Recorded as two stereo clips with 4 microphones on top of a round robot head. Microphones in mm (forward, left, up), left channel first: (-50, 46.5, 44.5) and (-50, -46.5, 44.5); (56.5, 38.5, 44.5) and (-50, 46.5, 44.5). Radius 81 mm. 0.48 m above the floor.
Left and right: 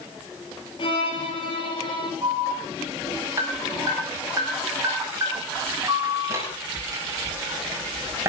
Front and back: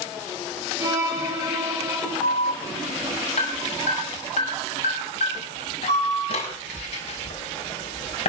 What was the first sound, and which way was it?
A violin, 115° left.